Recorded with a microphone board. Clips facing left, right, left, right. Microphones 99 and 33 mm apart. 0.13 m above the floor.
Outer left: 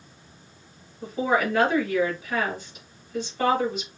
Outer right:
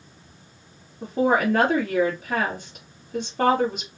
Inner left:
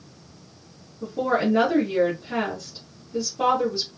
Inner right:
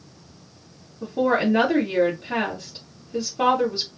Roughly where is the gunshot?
I don't hear a gunshot.